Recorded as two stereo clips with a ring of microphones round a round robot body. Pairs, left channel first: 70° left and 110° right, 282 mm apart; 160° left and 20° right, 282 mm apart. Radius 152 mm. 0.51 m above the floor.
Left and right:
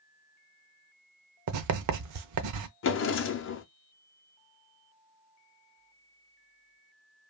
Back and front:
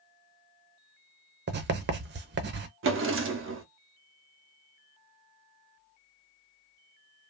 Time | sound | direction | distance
1.5 | writing | 80° right | 0.5 m
2.8 | a drawer | 25° left | 0.6 m